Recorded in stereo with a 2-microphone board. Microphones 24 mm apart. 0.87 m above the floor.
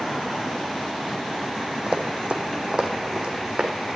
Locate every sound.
1.9 s running footsteps: 60° right (ahead or behind), 1.7 m; by 3.8 s 45° right (ahead or behind), 2.5 m